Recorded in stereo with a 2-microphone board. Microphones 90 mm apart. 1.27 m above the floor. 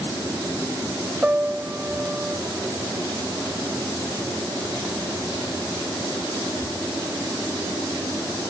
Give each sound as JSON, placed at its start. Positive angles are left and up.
{"t": 1.2, "sound": "a piano", "side_deg": -15}